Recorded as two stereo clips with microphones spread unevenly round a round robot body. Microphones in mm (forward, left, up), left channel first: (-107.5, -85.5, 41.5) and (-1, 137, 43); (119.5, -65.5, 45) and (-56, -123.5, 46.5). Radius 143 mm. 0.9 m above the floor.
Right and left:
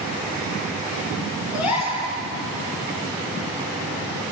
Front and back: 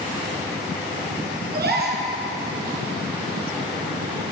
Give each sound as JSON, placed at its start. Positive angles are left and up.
{"t": 1.5, "sound": "a gasp", "azimuth_deg": -130, "distance_m": 6.0}